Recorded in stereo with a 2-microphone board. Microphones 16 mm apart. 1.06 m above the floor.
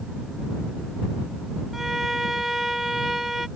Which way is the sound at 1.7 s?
15° right (ahead or behind).